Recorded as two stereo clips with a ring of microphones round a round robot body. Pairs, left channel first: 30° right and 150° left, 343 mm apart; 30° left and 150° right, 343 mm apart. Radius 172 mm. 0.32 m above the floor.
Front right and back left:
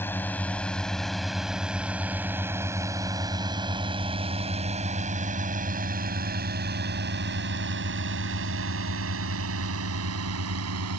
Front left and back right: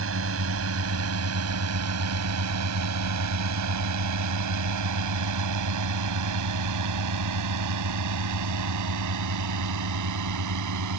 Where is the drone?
110° right; by 11.0 s 175° right.